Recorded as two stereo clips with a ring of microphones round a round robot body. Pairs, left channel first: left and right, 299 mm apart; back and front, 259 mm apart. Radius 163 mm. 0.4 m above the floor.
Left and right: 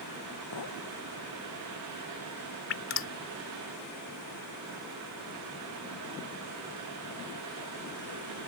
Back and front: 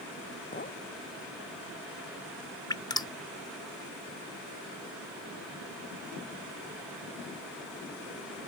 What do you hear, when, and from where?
0.5 s a clink: 125° left
2.7 s dripping: 110° left